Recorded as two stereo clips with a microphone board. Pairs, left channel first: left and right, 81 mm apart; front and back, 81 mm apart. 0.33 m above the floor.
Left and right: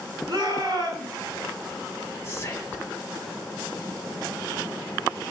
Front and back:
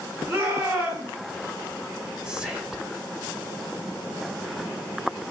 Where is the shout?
130° right, 8 m.